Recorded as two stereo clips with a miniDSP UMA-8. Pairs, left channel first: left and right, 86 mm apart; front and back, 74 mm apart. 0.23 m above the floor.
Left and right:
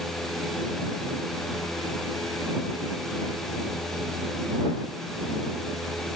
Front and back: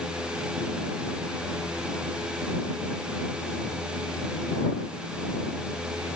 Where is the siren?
No siren in this recording.